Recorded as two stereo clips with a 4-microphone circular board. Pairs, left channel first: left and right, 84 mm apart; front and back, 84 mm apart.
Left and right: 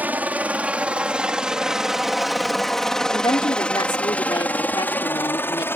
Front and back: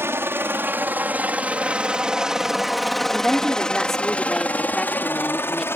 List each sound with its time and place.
0.0 s a helicopter: 145° right; by 5.8 s 45° left
3.1 s a woman speaking: 85° left